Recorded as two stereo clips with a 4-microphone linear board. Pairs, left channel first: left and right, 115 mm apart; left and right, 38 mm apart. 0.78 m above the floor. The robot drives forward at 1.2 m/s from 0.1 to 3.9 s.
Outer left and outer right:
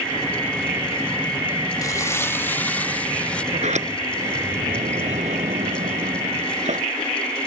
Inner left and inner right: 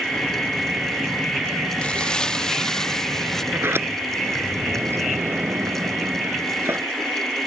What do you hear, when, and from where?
1.8 s crumpling: 30° left (ahead or behind); by 3.4 s 10° left (ahead or behind)
3.5 s a sliding door: 80° right; by 6.9 s 85° right